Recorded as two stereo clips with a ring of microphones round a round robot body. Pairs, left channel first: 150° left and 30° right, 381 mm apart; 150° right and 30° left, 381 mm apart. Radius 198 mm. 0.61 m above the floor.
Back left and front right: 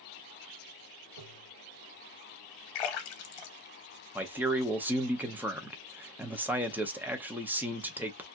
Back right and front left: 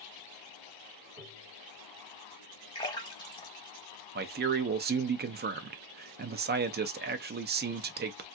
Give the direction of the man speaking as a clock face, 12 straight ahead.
10 o'clock.